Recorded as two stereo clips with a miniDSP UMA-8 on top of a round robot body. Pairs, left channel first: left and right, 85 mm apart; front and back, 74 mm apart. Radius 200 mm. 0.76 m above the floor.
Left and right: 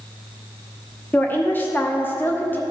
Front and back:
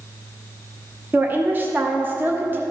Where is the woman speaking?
140° left, 1.1 m.